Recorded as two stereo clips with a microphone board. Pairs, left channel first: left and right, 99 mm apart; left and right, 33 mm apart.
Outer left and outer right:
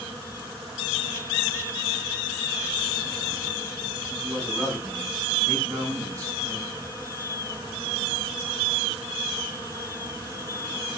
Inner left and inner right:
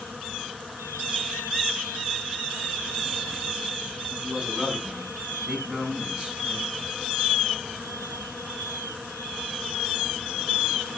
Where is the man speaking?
20° right (ahead or behind), 7 m; by 6.7 s 35° right (ahead or behind), 7.5 m.